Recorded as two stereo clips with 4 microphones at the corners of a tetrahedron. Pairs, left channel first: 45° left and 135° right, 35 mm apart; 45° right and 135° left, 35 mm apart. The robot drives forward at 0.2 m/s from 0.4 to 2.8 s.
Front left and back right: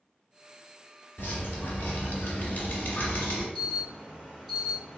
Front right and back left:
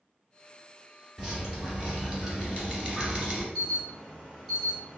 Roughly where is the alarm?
Behind.